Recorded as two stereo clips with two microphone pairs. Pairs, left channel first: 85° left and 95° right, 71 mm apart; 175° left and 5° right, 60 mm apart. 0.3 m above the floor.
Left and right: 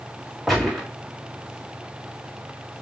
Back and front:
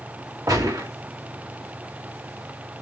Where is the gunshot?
10° right, 3.5 m.